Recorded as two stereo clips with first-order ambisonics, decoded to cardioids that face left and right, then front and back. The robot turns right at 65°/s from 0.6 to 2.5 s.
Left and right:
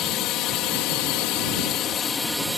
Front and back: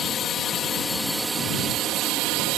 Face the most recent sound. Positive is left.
turn(degrees=180)